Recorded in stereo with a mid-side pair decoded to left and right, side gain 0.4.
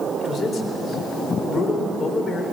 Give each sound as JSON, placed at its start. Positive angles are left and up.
{"t": 0.2, "sound": "a man speaking", "azimuth_deg": 55, "distance_m": 3.5}